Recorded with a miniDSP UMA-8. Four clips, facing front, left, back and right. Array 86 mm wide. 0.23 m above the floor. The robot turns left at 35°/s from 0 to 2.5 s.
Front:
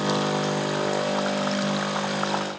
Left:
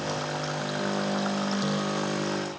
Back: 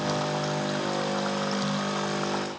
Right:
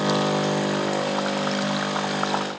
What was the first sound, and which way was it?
Only background noise.